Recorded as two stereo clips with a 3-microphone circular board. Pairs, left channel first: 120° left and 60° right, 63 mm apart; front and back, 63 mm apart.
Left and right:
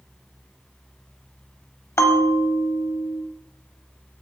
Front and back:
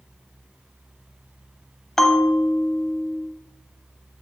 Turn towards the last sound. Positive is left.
turn(degrees=85)